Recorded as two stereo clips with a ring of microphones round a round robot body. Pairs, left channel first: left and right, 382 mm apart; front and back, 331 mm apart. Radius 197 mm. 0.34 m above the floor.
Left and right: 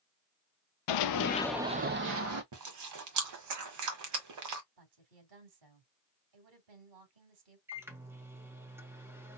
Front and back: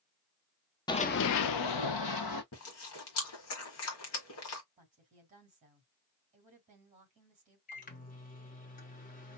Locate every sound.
0.9 s running footsteps: 75° left, 0.6 m; by 2.4 s 40° right, 1.2 m
2.5 s chewing: 50° right, 1.4 m
4.8 s a woman speaking: 110° right, 3 m
7.7 s a microwave: 15° right, 1.0 m